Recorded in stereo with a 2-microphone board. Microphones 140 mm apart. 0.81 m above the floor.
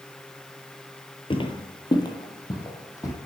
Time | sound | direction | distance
1.3 | footsteps | 40° left (ahead or behind) | 1.0 m